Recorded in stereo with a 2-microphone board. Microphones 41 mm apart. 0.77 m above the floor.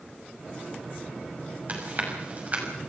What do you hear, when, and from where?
1.7 s chewing: 40° right (ahead or behind), 6 m